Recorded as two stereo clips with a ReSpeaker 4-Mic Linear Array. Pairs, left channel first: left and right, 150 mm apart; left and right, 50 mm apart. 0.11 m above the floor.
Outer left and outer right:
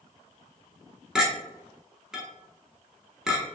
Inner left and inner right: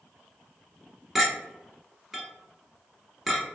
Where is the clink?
5° right (ahead or behind), 0.9 m.